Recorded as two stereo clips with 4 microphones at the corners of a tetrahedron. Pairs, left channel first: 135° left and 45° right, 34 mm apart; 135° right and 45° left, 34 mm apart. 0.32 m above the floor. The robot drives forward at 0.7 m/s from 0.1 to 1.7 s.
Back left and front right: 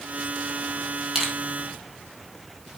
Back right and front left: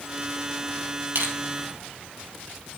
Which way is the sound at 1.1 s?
40° left.